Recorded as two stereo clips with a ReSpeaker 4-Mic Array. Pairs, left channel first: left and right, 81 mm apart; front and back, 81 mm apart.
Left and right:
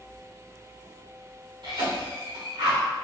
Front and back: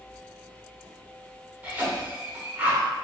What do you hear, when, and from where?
1.6 s a cough: 110° right, 1.3 m